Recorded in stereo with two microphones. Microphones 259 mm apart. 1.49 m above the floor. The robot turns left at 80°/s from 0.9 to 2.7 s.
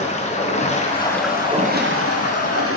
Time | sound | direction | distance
0.0 | running water | 30° left | 0.9 m